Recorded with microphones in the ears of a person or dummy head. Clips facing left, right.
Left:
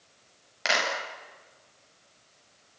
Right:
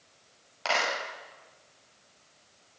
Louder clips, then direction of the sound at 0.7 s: Even; 25° left (ahead or behind).